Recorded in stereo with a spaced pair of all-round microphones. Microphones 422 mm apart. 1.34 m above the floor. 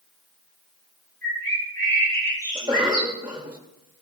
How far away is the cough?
About 0.6 m.